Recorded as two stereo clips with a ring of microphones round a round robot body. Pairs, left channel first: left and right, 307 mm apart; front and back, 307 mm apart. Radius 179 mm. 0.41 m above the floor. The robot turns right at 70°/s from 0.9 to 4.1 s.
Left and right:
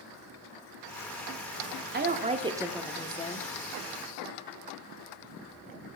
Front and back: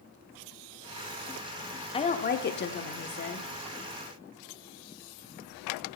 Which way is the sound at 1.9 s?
60° right.